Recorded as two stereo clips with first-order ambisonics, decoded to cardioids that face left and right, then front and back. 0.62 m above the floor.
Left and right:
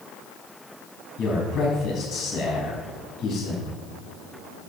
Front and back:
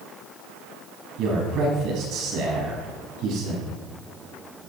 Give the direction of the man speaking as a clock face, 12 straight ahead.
7 o'clock.